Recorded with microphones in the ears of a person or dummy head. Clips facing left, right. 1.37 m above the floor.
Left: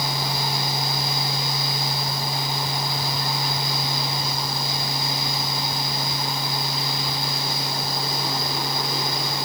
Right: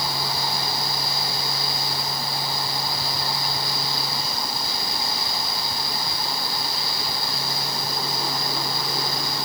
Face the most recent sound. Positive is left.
No sound to turn to.